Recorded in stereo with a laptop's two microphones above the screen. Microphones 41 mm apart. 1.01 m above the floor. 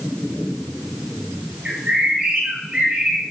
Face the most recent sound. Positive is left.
turn(degrees=-25)  # may be behind; listen again after turning